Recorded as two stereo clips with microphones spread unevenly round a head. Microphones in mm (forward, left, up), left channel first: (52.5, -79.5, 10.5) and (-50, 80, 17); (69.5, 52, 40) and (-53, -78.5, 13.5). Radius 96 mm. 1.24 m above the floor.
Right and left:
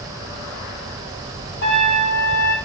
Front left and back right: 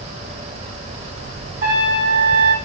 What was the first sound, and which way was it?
A trumpet, 90° right.